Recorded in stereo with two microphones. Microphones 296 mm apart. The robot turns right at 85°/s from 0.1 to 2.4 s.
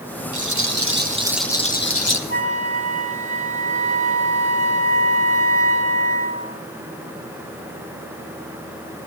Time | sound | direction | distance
0.3 | a rattle | 90° right | 1.5 m
2.3 | a flute | 35° right (ahead or behind) | 3 m